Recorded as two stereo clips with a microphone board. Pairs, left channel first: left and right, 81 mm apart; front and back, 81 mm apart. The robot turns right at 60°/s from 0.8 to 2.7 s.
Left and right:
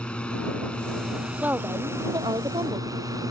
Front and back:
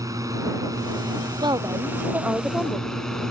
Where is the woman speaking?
160° right; by 3.0 s 85° right.